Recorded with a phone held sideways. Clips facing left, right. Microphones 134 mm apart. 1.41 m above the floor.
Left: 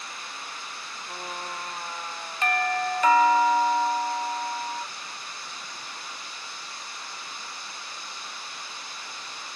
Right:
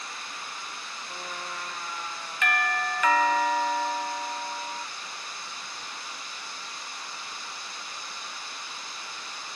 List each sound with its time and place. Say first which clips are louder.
1.1 s a trumpet: left 3 dB; 40° left (ahead or behind), 1.1 m
2.4 s a doorbell: left 3 dB; 35° left (ahead or behind), 0.8 m